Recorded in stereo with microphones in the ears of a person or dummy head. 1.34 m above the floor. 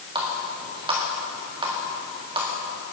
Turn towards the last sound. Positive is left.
turn(degrees=-25)  # may be behind; listen again after turning